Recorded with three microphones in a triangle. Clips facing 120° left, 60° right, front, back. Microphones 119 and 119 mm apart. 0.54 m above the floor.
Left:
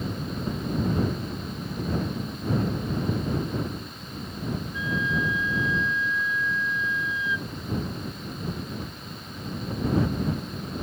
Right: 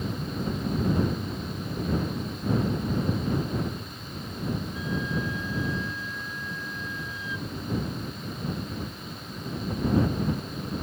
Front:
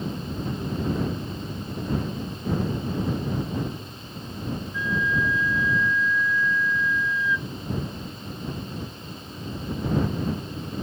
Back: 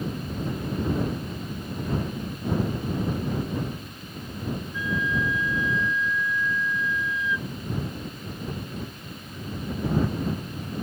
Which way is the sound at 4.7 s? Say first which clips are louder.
Left 2 dB, front 2 dB; 110° right.